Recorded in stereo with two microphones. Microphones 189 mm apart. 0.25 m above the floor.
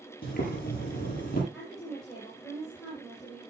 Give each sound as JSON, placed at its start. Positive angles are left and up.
{"t": 0.2, "sound": "boiling", "side_deg": 50, "distance_m": 5.5}
{"t": 1.5, "sound": "a woman speaking", "side_deg": 0, "distance_m": 8.0}